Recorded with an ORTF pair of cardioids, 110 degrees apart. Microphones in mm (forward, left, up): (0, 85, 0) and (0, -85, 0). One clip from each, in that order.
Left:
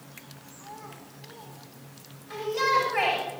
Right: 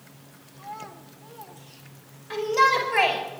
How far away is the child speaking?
About 2.5 m.